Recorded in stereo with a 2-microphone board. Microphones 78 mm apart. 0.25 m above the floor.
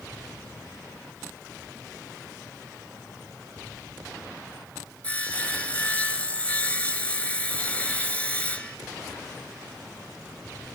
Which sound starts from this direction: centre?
Sawing, at 5.0 s.